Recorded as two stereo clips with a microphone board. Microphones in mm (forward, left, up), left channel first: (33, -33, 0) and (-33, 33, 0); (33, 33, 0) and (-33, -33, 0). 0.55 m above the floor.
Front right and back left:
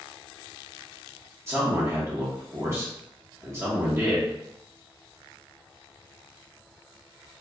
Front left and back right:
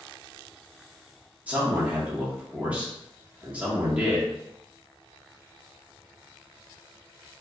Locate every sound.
1.5 s a man speaking: 165° left, 0.9 m